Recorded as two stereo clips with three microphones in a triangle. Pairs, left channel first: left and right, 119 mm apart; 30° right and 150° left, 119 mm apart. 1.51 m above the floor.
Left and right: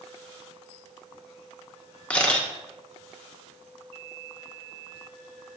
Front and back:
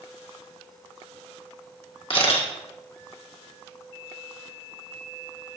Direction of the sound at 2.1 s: 10° left.